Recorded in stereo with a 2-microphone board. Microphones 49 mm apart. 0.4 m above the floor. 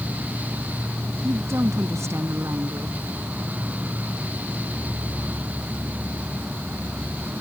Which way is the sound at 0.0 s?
30° right (ahead or behind).